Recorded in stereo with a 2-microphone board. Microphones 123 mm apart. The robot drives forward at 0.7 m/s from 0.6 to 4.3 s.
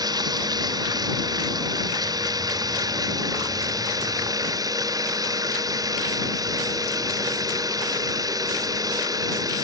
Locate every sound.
0.0 s running water: 30° right (ahead or behind)